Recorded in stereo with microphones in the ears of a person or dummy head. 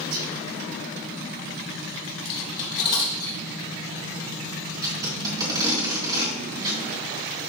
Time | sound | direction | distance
0.1 | whispering | 75° right (ahead or behind) | 2.5 m
2.2 | cutlery clinking | 35° left (ahead or behind) | 1.5 m
4.8 | tape being pulled | 25° right (ahead or behind) | 2.5 m